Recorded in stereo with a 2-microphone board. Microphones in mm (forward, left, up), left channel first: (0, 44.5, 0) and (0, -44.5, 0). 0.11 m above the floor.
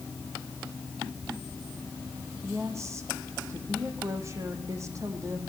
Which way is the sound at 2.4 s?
35° right (ahead or behind).